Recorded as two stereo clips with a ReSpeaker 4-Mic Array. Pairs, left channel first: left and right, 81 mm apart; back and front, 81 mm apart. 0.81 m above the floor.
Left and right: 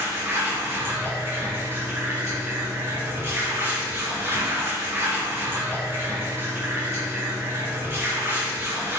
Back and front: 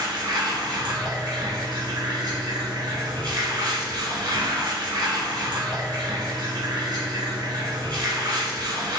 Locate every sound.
0.0 s running water: 30° right, 2.5 m